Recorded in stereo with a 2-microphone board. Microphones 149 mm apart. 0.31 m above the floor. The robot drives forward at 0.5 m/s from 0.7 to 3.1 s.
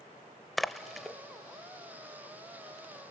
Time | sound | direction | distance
0.6 | a splash | centre (ahead or behind) | 0.7 m